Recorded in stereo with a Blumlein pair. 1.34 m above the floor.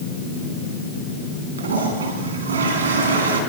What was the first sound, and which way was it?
A toilet flushing, 70° right.